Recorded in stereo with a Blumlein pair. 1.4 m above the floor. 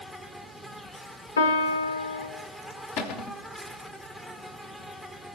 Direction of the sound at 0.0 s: 5° left.